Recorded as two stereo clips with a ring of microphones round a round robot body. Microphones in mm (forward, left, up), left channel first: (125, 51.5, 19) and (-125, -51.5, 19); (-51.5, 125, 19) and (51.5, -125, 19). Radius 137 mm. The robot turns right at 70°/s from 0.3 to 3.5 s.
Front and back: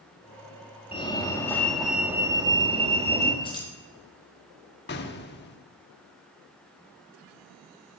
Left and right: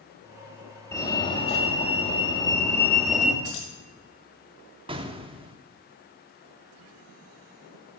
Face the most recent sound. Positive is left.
turn(degrees=-5)